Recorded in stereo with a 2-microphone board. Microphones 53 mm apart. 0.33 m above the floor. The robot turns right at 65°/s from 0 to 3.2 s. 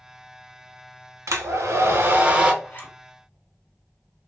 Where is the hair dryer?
105° right, 0.6 m; by 2.5 s 20° right, 0.6 m.